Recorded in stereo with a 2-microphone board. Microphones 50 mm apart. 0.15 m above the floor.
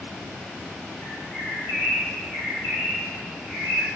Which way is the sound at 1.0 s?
40° left (ahead or behind).